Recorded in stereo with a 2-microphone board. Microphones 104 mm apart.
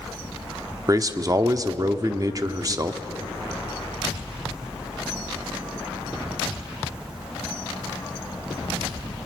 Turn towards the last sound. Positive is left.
turn(degrees=-35)  # may be behind; listen again after turning